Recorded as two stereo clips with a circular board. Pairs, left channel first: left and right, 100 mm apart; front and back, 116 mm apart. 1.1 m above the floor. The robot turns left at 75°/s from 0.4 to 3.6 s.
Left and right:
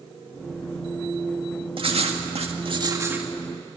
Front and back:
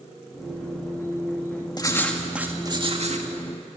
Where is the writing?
55° right, 1.9 m; by 3.3 s 170° right, 1.9 m.